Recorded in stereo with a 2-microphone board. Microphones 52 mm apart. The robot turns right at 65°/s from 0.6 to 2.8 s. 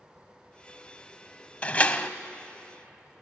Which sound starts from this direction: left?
A door slam, at 1.6 s.